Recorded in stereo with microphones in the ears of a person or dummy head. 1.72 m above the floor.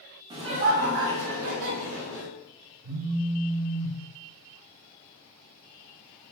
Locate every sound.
0.3 s laughter: 25° right (ahead or behind), 0.7 m; by 2.3 s 70° right (ahead or behind), 1.6 m
2.8 s a phone buzzing: 85° right, 0.5 m